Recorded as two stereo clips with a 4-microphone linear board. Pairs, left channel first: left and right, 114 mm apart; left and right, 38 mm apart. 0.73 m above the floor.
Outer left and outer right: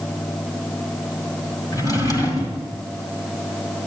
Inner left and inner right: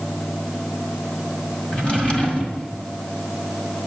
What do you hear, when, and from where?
1.7 s a drawer: 30° left (ahead or behind), 2.0 m